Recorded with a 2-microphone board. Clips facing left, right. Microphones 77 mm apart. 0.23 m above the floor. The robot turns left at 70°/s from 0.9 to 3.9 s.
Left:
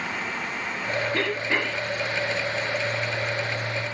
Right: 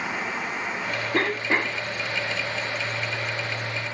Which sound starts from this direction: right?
A cough, at 1.1 s.